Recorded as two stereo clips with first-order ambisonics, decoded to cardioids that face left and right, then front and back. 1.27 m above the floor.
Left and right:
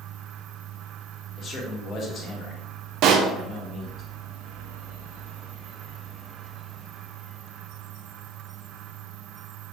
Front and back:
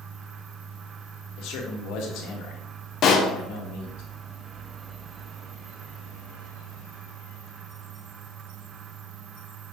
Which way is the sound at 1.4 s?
30° left.